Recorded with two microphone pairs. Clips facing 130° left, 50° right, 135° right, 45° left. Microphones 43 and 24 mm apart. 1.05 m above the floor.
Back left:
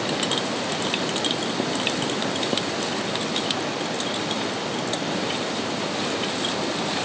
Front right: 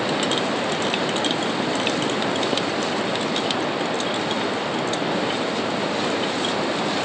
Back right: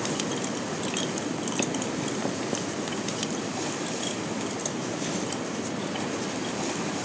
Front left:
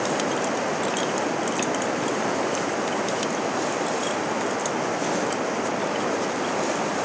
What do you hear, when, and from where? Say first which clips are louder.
0.0 s running water: front right 3 dB, front left 5 dB; 25° left